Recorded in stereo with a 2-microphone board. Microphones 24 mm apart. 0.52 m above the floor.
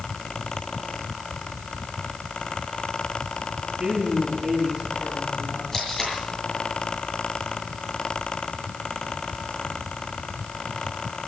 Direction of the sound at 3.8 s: 35° right (ahead or behind).